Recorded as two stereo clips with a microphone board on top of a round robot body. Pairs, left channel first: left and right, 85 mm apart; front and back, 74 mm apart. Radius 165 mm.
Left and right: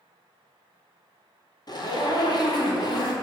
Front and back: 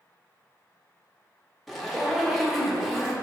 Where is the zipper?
90° left, 1.7 m.